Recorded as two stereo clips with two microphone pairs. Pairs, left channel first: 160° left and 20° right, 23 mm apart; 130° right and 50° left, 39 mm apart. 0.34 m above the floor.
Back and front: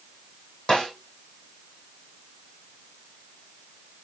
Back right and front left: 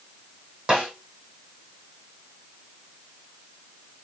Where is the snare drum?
110° left, 4 m.